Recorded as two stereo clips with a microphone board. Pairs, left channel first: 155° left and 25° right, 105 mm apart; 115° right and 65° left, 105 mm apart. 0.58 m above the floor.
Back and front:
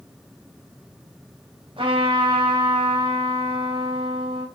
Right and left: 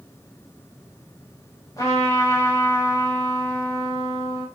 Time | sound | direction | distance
1.8 | a trumpet | 55° right | 4 m